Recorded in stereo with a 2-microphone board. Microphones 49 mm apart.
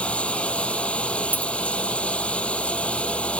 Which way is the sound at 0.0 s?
25° left (ahead or behind).